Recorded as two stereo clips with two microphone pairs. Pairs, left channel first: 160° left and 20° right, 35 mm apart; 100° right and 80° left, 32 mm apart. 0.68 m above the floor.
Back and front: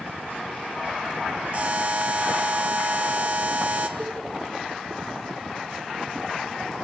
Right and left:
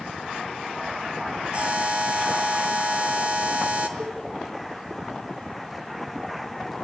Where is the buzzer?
25° left, 2 m.